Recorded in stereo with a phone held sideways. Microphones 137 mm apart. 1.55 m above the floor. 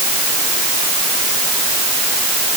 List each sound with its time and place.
Only background noise.